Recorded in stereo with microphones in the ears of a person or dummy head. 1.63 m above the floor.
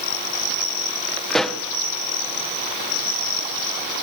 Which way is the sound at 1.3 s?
Centre (ahead or behind).